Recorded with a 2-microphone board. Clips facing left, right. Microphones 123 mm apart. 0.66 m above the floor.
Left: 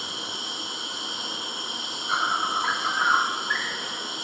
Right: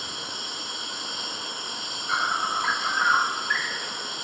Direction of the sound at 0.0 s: 10° left (ahead or behind).